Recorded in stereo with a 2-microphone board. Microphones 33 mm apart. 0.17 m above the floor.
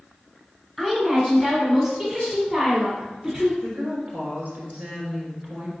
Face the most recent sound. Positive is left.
turn(degrees=-55)  # may be behind; listen again after turning